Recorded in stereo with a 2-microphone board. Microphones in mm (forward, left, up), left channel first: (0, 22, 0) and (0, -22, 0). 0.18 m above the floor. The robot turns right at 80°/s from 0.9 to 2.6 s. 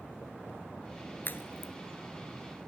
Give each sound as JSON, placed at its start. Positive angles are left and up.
{"t": 1.2, "sound": "a crack", "side_deg": 50, "distance_m": 1.3}